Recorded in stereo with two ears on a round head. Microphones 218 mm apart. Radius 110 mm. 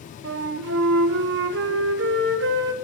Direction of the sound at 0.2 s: 55° right (ahead or behind).